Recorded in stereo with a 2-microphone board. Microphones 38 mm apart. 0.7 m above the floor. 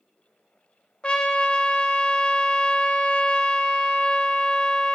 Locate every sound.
1.0 s a trumpet: 25° left (ahead or behind), 0.6 m